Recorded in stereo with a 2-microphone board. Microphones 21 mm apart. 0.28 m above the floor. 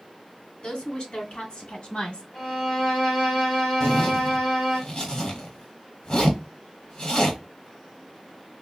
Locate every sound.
0.6 s a woman speaking: 55° left (ahead or behind), 2.0 m
2.3 s a violin: 50° left (ahead or behind), 1.7 m
3.8 s a zipper: 40° left (ahead or behind), 1.2 m